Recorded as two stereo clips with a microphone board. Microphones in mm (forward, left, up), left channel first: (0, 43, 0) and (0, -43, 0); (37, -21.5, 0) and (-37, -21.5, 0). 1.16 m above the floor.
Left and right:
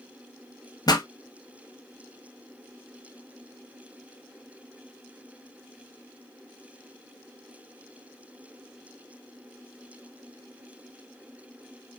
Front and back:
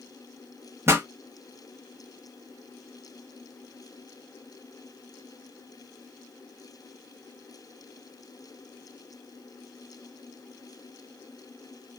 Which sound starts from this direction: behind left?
A pop, at 0.9 s.